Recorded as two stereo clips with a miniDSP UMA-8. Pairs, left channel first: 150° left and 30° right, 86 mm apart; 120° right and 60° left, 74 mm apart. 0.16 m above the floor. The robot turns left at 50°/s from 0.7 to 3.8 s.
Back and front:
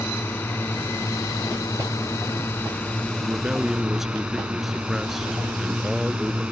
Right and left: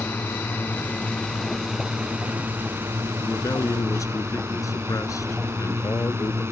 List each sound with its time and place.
0.0 s a drone: 165° right; by 6.5 s 40° left
3.2 s a man speaking: 85° right; by 6.4 s 115° right